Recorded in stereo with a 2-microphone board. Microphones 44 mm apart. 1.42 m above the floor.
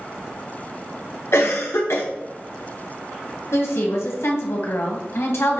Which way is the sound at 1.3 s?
70° left (ahead or behind).